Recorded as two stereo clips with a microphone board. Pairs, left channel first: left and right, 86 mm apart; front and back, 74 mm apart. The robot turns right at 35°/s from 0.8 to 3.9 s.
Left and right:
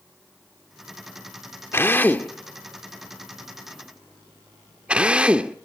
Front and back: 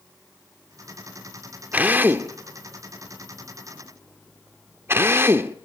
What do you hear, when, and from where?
1.7 s a drill: 130° left, 1.4 m; by 5.5 s 155° right, 1.4 m